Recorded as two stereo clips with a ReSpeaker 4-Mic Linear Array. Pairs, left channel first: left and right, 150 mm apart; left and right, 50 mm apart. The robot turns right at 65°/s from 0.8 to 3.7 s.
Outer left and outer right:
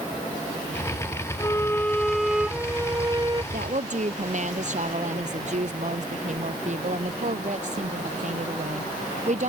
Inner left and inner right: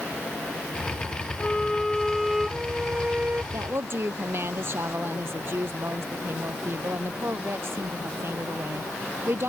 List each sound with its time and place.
1.4 s a violin: 25° left (ahead or behind); by 3.4 s 30° right (ahead or behind)
3.5 s a woman speaking: 65° right (ahead or behind); by 9.5 s 50° right (ahead or behind)